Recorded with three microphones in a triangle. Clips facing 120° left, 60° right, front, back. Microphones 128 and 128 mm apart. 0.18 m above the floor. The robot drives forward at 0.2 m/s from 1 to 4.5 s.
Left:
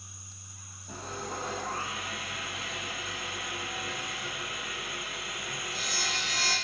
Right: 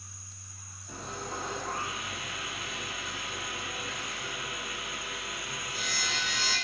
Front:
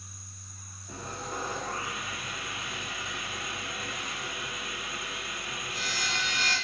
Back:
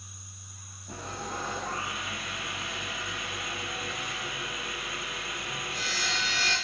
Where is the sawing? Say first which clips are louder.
Left 1 dB, back 1 dB; 170° left, 1.9 m; by 6.5 s 175° left, 2.5 m.